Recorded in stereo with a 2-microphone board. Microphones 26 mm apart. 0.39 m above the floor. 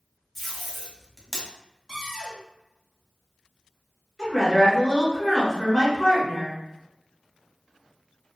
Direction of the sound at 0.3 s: 5° left (ahead or behind).